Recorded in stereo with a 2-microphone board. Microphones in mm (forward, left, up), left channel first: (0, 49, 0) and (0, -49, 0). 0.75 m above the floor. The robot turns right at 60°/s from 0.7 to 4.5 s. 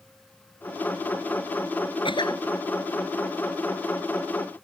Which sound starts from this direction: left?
A cough, at 2.0 s.